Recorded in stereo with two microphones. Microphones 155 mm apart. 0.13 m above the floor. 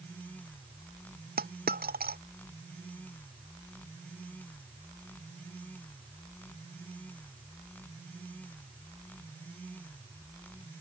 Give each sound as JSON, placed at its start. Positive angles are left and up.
{"t": 1.4, "sound": "a dropped coin", "side_deg": -80}